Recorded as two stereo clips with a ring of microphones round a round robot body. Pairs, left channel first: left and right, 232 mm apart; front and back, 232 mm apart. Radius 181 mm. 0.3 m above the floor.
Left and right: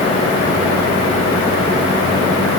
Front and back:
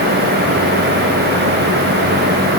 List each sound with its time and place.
Only background noise.